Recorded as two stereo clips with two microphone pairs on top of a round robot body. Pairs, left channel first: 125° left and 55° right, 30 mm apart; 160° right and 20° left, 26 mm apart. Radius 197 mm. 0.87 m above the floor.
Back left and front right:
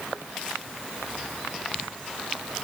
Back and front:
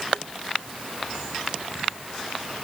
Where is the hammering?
I don't hear hammering.